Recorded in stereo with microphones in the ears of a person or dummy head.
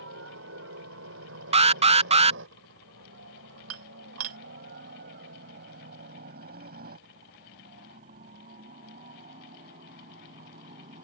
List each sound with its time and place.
0.0 s a helicopter: 75° right (ahead or behind); by 11.1 s 40° right (ahead or behind)
1.5 s an alarm: 35° right (ahead or behind)
3.7 s dishes clattering: 85° right